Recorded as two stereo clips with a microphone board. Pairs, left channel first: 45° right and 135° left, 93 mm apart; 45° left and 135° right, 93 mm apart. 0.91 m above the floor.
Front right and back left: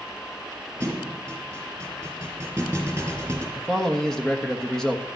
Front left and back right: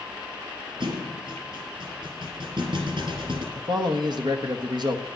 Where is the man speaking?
125° right, 1.3 m.